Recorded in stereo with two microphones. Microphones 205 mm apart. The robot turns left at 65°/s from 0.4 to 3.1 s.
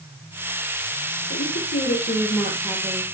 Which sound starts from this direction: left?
A woman speaking, at 1.3 s.